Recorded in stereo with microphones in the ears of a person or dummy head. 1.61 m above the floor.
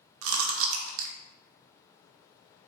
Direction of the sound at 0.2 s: 70° right (ahead or behind).